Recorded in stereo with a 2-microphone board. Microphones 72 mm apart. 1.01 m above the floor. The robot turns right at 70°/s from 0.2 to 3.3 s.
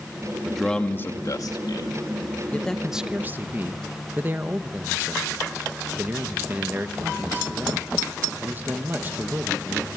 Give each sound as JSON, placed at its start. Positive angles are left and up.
{"t": 0.5, "sound": "a man speaking", "azimuth_deg": -5, "distance_m": 2.0}
{"t": 2.5, "sound": "a man speaking", "azimuth_deg": 160, "distance_m": 1.3}